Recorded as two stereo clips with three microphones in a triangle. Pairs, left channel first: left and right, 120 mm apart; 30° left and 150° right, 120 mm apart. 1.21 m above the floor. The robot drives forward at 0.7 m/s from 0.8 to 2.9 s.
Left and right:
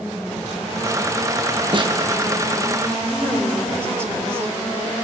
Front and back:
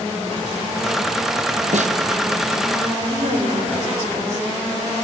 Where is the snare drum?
140° right, 1.0 m; by 2.0 s 145° right, 1.1 m.